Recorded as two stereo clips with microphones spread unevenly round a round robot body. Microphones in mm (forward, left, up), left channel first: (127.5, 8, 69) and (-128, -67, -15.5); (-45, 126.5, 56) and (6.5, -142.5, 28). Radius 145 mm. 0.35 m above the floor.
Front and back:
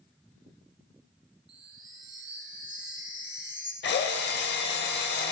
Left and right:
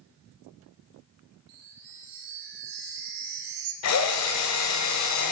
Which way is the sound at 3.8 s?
75° left.